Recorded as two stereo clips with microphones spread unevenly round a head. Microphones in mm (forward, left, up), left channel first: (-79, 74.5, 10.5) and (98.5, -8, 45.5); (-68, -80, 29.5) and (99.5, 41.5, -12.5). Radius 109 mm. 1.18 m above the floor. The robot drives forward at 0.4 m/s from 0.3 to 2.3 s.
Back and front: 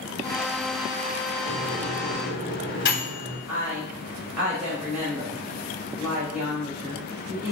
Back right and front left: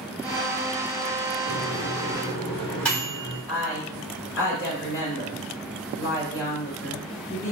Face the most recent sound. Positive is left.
turn(degrees=-110)